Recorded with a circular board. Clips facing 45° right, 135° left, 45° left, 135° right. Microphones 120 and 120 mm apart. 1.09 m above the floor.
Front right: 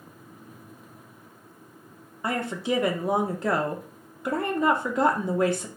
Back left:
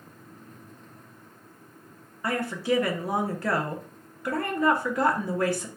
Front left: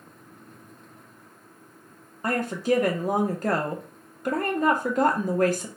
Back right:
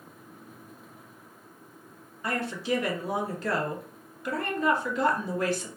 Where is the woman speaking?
15° left, 0.7 m.